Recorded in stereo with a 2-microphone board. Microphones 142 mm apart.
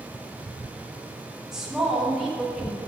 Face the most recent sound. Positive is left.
turn(degrees=-5)  # may be behind; listen again after turning